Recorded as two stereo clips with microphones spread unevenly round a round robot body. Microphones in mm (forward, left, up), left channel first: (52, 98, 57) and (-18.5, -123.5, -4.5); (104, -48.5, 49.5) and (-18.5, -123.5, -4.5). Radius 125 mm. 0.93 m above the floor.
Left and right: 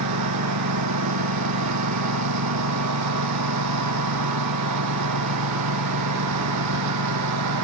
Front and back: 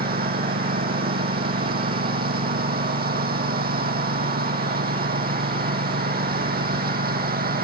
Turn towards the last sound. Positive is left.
turn(degrees=-130)